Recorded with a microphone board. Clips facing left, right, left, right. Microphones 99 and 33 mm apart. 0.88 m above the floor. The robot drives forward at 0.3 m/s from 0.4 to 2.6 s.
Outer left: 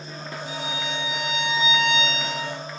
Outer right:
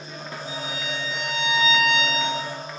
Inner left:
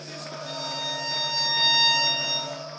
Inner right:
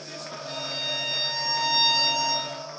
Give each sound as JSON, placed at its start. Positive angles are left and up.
{"t": 0.5, "sound": "a violin", "side_deg": 65, "distance_m": 0.8}